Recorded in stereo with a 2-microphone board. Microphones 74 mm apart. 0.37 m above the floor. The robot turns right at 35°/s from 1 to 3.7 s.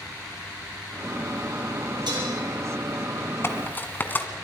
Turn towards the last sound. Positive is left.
turn(degrees=25)  # may be behind; listen again after turning